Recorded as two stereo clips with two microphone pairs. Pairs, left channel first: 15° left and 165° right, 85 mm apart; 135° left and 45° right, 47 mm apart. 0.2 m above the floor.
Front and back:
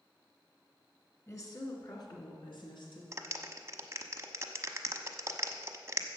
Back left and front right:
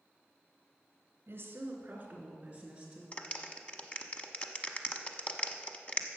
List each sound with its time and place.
1.3 s a woman speaking: 30° right, 2.5 m; by 3.0 s 25° left, 3.5 m
3.1 s a clap: 170° left, 1.0 m